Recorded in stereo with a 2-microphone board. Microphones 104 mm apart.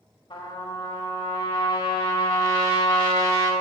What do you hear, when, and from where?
0.3 s a trumpet: 60° left (ahead or behind), 1.7 m